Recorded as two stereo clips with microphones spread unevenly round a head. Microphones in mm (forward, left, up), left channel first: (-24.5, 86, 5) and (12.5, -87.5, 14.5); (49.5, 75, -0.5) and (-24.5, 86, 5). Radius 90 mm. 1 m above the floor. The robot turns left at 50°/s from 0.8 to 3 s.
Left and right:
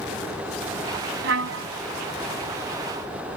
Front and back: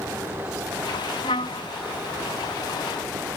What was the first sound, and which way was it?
A trumpet, 55° right.